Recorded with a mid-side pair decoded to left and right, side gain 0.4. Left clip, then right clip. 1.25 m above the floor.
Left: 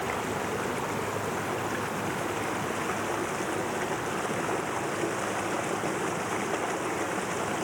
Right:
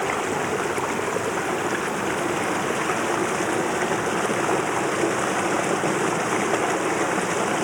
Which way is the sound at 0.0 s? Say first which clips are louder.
Right 7 dB; 55° right.